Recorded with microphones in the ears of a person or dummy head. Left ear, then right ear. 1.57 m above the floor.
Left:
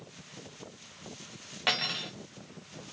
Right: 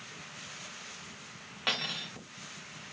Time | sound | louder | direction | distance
1.7 | cutlery clinking | left 3 dB | 5° left (ahead or behind) | 0.7 m